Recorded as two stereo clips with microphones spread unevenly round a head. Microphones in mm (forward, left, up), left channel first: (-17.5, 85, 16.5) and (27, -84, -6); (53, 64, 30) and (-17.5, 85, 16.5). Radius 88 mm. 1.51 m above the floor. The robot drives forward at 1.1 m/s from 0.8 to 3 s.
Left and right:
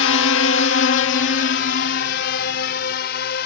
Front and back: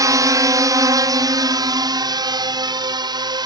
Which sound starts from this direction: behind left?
A drone, at 0.0 s.